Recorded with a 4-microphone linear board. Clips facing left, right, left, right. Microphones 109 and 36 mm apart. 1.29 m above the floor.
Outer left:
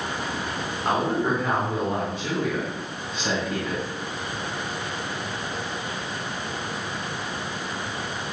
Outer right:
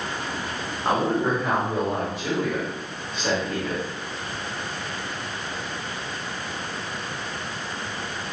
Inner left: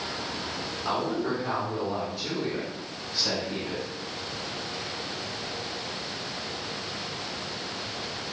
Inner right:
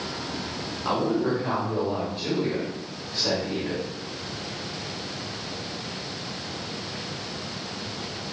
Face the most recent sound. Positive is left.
turn(degrees=-40)  # may be behind; listen again after turning